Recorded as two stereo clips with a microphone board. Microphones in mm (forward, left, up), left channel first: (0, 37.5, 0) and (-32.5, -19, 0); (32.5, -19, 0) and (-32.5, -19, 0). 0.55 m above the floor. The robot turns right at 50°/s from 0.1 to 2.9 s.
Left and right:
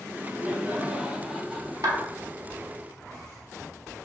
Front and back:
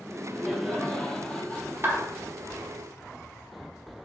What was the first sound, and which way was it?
Laughter, 110° right.